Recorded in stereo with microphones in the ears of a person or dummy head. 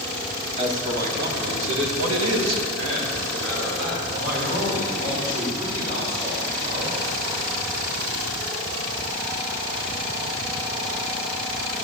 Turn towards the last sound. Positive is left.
turn(degrees=-35)  # may be behind; listen again after turning